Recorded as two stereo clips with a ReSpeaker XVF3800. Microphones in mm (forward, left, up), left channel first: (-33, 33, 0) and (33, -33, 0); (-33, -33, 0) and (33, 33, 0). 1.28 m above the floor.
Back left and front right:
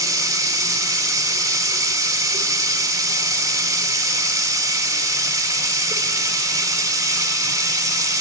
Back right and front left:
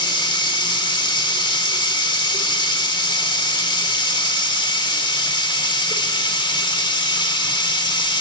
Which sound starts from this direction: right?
Running water, at 0.0 s.